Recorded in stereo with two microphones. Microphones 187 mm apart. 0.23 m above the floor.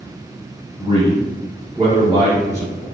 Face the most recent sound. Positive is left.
turn(degrees=-15)  # may be behind; listen again after turning